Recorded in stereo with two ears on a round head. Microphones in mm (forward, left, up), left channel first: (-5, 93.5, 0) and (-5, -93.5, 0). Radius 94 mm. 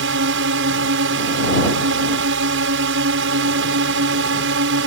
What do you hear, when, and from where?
0.0 s a drone: 65° right (ahead or behind)